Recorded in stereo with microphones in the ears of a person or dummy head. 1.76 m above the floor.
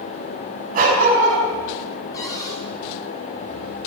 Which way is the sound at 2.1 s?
20° left (ahead or behind).